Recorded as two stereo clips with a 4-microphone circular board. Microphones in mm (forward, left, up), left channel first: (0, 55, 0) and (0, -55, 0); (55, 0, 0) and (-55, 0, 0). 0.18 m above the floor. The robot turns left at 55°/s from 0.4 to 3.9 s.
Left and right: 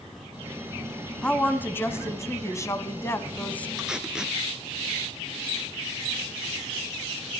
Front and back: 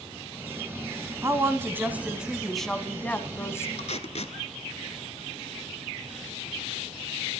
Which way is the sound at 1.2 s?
160° left.